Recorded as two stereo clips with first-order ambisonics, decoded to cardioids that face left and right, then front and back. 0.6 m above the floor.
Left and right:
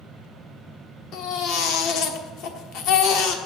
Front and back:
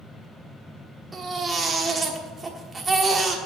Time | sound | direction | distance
1.1 | a baby crying | 110° left | 1.2 m